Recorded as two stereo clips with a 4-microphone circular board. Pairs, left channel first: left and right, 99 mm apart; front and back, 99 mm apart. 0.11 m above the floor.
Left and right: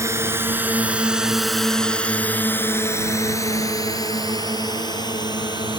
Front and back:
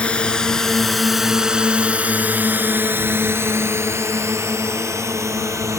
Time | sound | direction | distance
0.0 | a drone | 70° right | ?